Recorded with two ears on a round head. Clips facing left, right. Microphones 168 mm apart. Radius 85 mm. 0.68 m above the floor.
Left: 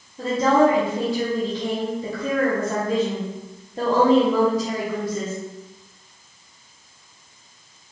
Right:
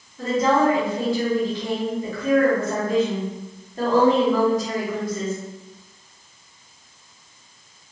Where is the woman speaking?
25° left (ahead or behind), 1.1 m.